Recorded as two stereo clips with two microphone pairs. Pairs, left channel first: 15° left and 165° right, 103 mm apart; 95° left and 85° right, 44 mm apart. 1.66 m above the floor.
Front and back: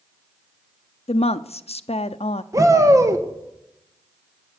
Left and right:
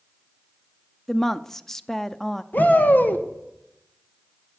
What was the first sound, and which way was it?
A woman speaking, 15° left.